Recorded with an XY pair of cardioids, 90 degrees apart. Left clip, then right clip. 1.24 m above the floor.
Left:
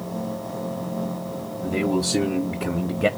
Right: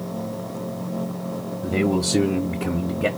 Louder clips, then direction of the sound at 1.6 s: Right 1 dB; 30° right.